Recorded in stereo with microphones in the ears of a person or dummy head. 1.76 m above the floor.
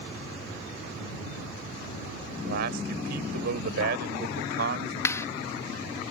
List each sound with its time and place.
2.3 s a man speaking: 65° right (ahead or behind)
5.0 s a clap: 15° left (ahead or behind)